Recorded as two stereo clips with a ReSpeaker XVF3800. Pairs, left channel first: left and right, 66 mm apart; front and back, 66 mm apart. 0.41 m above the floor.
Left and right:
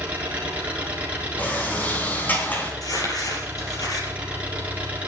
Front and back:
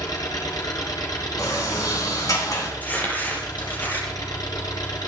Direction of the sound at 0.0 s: 20° right.